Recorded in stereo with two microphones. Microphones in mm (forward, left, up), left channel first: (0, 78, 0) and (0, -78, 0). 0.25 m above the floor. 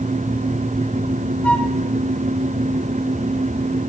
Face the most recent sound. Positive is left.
turn(degrees=10)  # may be behind; listen again after turning